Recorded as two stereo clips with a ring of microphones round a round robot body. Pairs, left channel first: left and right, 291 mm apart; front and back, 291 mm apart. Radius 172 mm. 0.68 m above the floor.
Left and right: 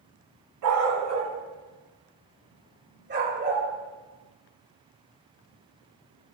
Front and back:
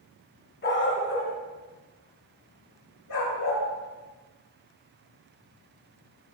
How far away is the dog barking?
About 2.0 m.